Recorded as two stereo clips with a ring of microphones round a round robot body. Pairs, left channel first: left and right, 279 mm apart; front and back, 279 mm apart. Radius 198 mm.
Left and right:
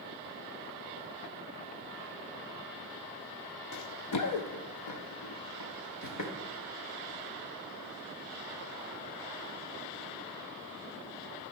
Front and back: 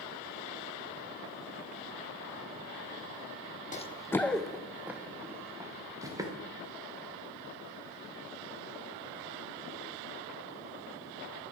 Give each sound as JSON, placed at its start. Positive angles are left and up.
{"t": 3.7, "sound": "running footsteps", "azimuth_deg": 60, "distance_m": 0.5}